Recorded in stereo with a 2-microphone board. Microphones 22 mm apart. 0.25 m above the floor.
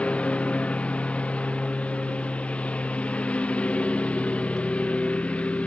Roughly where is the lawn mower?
Left.